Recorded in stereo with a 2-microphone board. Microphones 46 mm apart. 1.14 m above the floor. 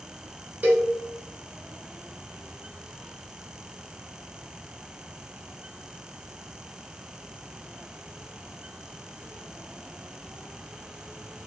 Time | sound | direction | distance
0.6 | a cowbell | 40° right (ahead or behind) | 0.7 m